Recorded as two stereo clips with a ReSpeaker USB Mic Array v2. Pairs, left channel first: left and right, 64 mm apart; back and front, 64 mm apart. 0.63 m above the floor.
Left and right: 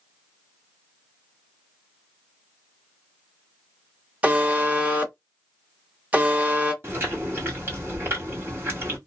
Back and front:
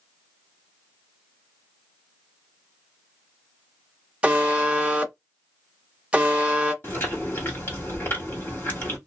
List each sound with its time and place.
4.2 s a buzzer: 55° right, 0.7 m
6.8 s chewing: 135° right, 1.7 m